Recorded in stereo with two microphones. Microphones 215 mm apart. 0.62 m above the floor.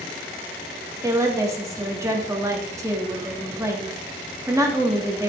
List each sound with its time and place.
1.0 s a woman speaking: 15° right (ahead or behind), 1.3 m